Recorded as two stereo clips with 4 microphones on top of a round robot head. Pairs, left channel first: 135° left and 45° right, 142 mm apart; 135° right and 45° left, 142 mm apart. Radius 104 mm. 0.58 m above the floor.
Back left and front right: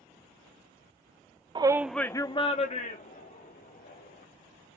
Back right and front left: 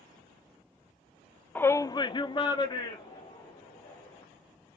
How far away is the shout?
About 0.6 m.